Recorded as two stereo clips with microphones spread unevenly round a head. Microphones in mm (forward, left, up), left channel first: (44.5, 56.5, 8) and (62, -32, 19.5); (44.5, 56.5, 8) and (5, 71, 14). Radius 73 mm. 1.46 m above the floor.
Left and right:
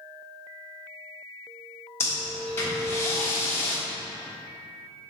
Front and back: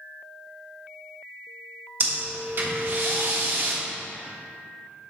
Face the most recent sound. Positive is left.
turn(degrees=175)